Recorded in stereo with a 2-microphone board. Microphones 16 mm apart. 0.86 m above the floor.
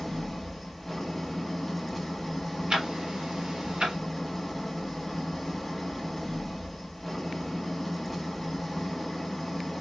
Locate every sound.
0.0 s an engine running: centre (ahead or behind), 1.4 m
2.7 s ticking: 70° right (ahead or behind), 2.0 m